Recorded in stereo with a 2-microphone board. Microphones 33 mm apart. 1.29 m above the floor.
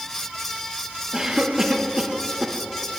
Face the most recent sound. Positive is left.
turn(degrees=-20)  # may be behind; listen again after turning